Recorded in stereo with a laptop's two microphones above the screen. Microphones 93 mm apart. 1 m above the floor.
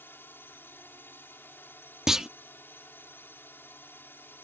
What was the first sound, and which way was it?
A drone, 20° left (ahead or behind).